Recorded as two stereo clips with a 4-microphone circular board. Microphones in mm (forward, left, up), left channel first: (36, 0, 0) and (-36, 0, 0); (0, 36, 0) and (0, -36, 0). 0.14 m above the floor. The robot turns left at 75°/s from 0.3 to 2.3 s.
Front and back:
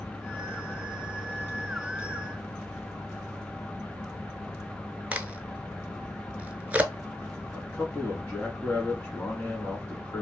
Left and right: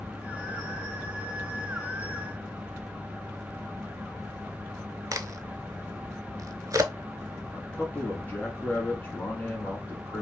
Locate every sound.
5.1 s a crack: 115° right, 0.5 m
7.5 s a man speaking: 45° left, 1.2 m